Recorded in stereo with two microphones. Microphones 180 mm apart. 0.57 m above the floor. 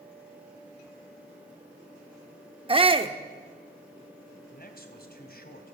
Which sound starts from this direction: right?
A shout, at 2.7 s.